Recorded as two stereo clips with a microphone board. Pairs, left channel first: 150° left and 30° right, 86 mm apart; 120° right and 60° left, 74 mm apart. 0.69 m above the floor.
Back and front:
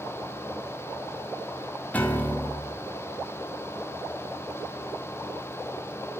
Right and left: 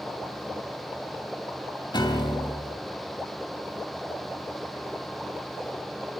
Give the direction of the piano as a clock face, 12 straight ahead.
5 o'clock.